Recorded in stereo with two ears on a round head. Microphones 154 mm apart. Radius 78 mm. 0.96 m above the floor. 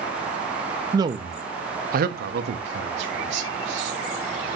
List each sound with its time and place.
0.9 s a man speaking: 20° right (ahead or behind), 1.3 m; by 4.0 s 75° right (ahead or behind), 2.5 m